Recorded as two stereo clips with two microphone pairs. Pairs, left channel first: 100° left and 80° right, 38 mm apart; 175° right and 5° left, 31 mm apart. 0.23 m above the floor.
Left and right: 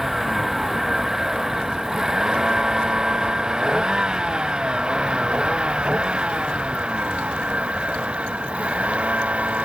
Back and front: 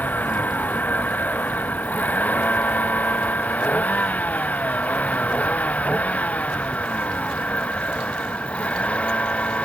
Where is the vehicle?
165° right; by 9.7 s 135° right.